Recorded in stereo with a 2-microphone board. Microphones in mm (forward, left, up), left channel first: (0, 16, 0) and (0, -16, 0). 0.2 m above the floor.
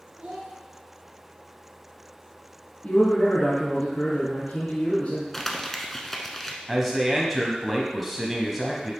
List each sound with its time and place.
0.2 s a child speaking: 25° right (ahead or behind), 2 m
2.8 s a man speaking: 50° left (ahead or behind), 1.8 m
5.3 s crumpling: 10° left (ahead or behind), 0.8 m
6.7 s a man speaking: 5° right (ahead or behind), 1.0 m